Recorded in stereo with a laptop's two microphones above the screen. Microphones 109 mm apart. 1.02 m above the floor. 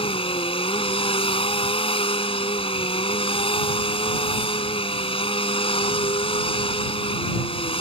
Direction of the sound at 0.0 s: 60° left (ahead or behind).